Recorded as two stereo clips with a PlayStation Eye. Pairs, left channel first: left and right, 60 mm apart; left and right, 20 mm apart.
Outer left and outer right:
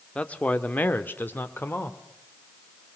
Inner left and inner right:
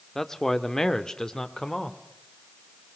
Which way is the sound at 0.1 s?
20° left (ahead or behind).